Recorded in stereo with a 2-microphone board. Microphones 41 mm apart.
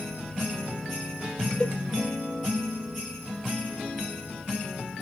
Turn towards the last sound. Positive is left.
turn(degrees=25)  # may be behind; listen again after turning